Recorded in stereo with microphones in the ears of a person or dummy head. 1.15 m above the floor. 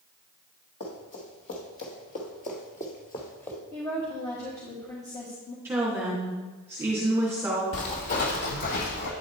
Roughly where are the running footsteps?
Left.